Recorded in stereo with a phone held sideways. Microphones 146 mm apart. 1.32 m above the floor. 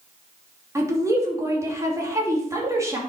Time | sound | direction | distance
0.8 | a woman speaking | 20° right (ahead or behind) | 3 m